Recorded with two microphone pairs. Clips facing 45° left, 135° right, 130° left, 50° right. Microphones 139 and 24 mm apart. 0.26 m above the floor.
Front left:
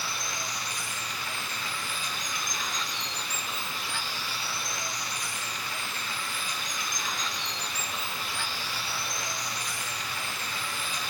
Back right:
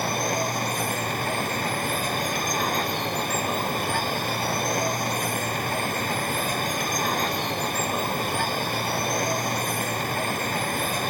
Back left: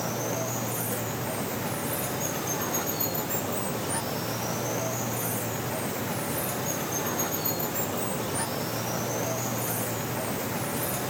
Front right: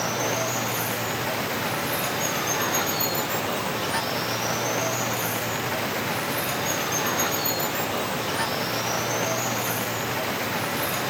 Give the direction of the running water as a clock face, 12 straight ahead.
3 o'clock.